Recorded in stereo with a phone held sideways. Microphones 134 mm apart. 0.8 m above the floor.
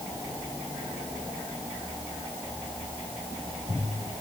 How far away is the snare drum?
I don't hear a snare drum.